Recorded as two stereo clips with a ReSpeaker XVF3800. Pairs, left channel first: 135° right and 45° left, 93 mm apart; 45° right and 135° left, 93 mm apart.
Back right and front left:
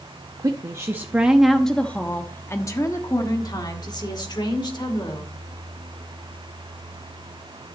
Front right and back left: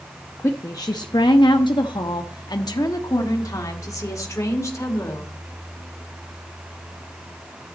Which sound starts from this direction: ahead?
A woman speaking, at 0.4 s.